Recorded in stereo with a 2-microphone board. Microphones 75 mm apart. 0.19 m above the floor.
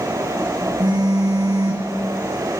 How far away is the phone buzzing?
About 5 m.